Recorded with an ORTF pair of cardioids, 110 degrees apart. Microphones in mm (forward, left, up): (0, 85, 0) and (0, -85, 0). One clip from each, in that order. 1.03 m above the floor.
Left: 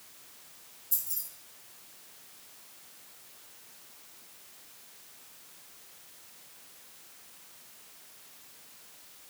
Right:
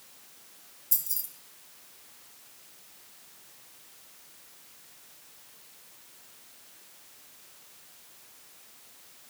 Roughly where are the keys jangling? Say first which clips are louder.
Right 3 dB; ahead right.